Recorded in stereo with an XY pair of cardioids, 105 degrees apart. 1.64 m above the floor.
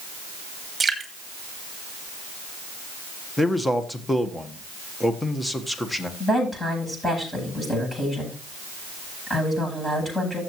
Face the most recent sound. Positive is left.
turn(degrees=15)